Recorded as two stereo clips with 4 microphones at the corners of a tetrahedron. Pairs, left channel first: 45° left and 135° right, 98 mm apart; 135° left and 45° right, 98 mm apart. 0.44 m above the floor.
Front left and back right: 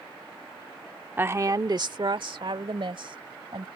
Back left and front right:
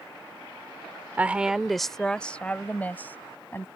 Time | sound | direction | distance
1.2 | a woman speaking | 90° right | ?